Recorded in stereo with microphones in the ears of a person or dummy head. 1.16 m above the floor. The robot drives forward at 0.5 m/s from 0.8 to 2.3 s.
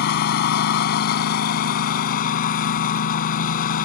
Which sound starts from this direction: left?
A lawn mower, at 0.0 s.